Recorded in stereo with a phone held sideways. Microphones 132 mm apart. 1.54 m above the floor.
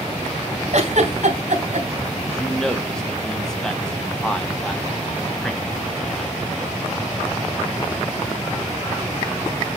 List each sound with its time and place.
0.7 s a giggle: 65° right (ahead or behind), 3 m
2.2 s a man speaking: 5° left (ahead or behind), 1.1 m